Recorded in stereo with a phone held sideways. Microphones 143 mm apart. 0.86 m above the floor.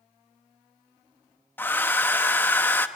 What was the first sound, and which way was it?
A hair dryer, 15° left (ahead or behind).